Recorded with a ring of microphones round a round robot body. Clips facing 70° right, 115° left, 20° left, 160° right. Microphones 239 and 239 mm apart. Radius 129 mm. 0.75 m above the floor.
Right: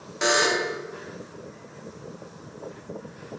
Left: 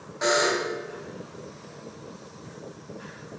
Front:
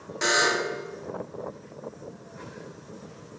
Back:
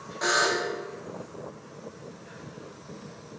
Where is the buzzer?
25° right, 1.8 m.